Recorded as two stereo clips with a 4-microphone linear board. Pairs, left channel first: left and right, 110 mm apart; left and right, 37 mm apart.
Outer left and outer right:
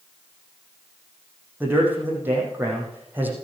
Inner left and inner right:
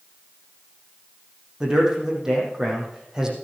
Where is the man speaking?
15° right (ahead or behind), 5 m.